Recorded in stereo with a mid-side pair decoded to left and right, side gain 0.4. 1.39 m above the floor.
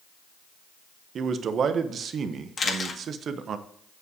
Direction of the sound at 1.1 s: 60° right.